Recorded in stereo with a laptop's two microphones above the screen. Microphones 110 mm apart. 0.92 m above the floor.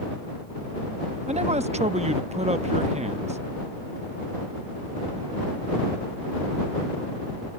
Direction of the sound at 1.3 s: 75° right (ahead or behind).